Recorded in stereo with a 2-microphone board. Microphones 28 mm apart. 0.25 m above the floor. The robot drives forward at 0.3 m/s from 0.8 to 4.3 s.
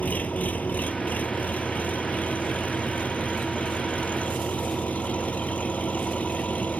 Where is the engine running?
65° left (ahead or behind); by 6.8 s 55° left (ahead or behind).